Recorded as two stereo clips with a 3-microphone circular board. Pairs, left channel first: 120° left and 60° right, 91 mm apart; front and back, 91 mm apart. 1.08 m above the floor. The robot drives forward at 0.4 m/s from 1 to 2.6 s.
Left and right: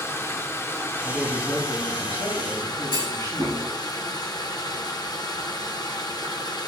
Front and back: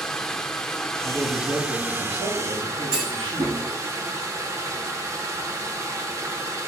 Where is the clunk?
160° left, 6.5 m.